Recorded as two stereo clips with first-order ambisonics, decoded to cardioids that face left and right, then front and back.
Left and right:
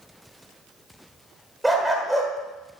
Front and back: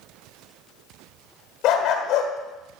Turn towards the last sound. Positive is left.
turn(degrees=-5)